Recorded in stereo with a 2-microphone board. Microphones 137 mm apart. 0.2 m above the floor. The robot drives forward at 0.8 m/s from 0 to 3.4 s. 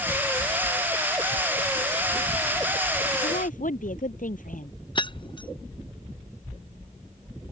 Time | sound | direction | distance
3.2 | a woman speaking | 70° left (ahead or behind) | ?
5.0 | keys jangling | 35° left (ahead or behind) | ?